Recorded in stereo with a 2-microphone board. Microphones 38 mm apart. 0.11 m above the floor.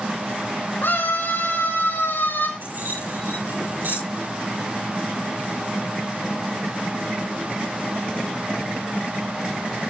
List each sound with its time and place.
0.8 s a scream: 70° left (ahead or behind), 5 m; by 2.5 s 60° left (ahead or behind), 5 m
2.6 s keys jangling: 60° right (ahead or behind), 9.5 m